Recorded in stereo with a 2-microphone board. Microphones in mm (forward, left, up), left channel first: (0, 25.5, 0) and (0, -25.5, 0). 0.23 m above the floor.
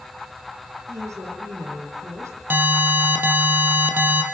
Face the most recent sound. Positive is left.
turn(degrees=-40)  # may be behind; listen again after turning